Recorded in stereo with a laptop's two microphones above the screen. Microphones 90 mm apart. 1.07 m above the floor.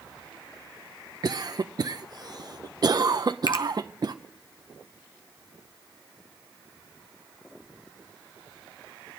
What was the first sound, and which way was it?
A cough, 50° right (ahead or behind).